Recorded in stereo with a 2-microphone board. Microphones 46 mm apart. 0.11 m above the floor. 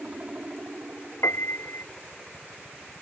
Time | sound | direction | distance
0.0 | a helicopter | 30° right (ahead or behind) | ?
1.2 | a piano | 70° left (ahead or behind) | ?